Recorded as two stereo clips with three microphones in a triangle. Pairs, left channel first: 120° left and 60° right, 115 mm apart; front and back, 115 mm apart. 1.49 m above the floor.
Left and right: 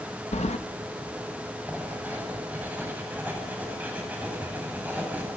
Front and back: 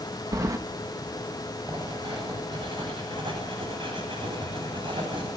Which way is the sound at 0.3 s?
120° left.